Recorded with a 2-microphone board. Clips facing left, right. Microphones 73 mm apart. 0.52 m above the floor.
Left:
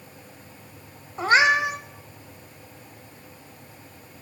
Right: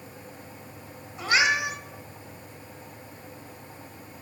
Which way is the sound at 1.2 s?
40° left (ahead or behind).